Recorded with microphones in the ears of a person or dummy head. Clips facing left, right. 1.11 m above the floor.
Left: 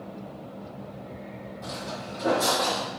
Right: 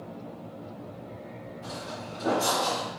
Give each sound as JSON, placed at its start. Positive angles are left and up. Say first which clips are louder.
{"t": 1.6, "sound": "footsteps", "louder": "left 3 dB", "side_deg": 50, "distance_m": 1.8}